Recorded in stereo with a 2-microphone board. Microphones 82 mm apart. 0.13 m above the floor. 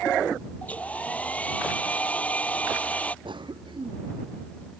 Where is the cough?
80° right.